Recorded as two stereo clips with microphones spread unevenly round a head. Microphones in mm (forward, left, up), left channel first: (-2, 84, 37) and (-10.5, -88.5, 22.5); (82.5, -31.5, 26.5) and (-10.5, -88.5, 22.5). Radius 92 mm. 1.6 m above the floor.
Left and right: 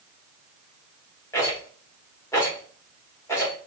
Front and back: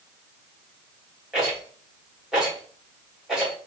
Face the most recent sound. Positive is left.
turn(degrees=125)